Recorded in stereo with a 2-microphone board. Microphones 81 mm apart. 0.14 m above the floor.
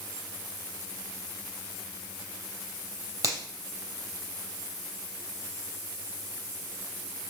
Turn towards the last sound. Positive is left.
turn(degrees=-45)  # may be behind; listen again after turning